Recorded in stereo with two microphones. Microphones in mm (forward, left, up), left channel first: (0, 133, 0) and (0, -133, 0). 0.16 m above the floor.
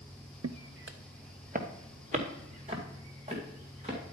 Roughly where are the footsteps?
Right.